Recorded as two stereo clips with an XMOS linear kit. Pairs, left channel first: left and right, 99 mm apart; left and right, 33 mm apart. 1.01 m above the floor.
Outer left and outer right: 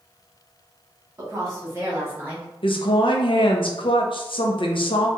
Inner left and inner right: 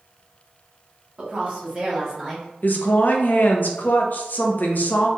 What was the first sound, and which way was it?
A woman speaking, 40° right (ahead or behind).